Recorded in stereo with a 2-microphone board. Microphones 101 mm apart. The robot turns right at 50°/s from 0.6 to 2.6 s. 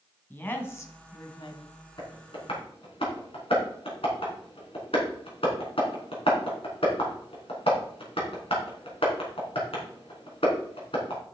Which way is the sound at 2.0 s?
50° left (ahead or behind).